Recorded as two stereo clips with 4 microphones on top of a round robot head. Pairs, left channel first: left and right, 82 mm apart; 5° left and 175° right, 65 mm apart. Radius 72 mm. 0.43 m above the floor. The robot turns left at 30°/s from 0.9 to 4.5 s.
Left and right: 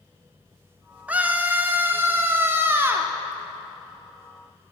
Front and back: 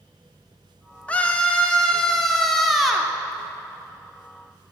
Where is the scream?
40° right, 0.8 m; by 3.1 s 100° right, 0.8 m.